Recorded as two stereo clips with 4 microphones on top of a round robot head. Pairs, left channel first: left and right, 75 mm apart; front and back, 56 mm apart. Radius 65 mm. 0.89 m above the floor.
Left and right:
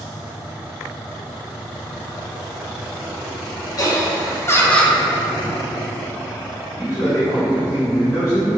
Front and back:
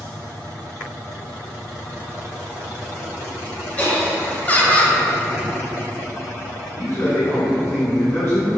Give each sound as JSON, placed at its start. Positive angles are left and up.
{"t": 3.8, "sound": "laughter", "azimuth_deg": 60, "distance_m": 1.3}
{"t": 6.7, "sound": "a man speaking", "azimuth_deg": 40, "distance_m": 1.5}